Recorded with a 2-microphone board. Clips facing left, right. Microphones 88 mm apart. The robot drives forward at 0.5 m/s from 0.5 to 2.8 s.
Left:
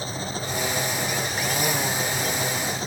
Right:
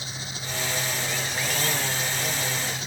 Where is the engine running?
40° left (ahead or behind).